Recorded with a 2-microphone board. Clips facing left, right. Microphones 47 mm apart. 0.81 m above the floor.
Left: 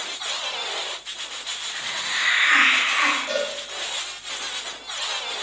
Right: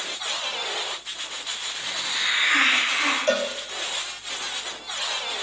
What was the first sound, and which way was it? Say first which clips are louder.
A hiss: left 4 dB; 75° left (ahead or behind).